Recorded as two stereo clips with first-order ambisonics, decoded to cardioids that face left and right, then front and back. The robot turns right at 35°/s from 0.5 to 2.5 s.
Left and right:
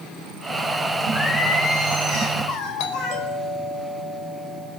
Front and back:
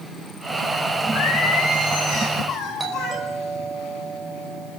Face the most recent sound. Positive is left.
turn(degrees=105)